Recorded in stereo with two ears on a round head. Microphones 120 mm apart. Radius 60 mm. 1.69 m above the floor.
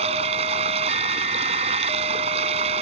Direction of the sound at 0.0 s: 45° right (ahead or behind).